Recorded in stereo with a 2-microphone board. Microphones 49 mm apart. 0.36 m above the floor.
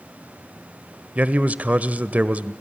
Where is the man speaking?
30° right (ahead or behind), 1.1 m.